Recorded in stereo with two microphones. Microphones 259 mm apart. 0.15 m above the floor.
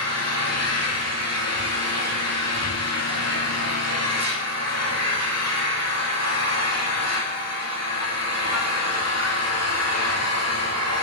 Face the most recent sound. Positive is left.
turn(degrees=70)  # may be behind; listen again after turning